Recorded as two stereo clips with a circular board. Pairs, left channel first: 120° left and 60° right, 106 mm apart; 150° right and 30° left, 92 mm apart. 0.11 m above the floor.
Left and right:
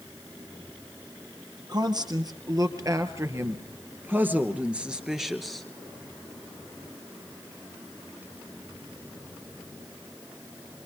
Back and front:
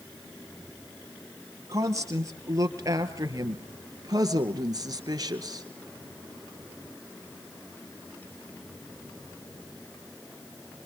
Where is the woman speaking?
20° right, 3 m; by 5.7 s 35° left, 2 m.